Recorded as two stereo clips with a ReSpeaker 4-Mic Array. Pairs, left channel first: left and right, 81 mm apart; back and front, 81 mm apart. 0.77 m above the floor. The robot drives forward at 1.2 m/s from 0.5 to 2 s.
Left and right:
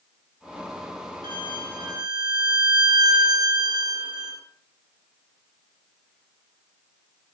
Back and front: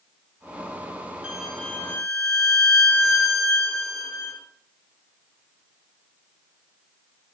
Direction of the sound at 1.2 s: 70° right.